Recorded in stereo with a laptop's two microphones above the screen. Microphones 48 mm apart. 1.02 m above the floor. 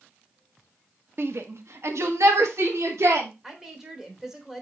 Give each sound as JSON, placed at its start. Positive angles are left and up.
{"t": 1.2, "sound": "a shout", "side_deg": -55, "distance_m": 0.9}
{"t": 3.4, "sound": "a woman speaking", "side_deg": -10, "distance_m": 3.0}